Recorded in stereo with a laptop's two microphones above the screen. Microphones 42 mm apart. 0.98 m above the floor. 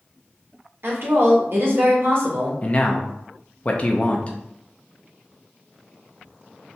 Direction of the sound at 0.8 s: 55° right (ahead or behind).